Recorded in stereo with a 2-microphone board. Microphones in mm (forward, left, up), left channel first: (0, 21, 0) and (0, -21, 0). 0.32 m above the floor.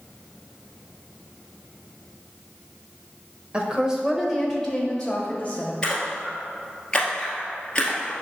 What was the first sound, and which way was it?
A woman speaking, 25° right (ahead or behind).